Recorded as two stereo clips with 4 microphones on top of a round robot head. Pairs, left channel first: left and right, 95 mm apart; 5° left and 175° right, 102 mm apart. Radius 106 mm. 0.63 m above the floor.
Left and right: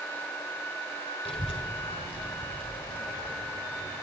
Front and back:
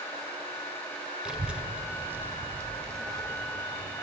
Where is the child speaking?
100° left, 2 m; by 4.0 s 135° left, 3 m.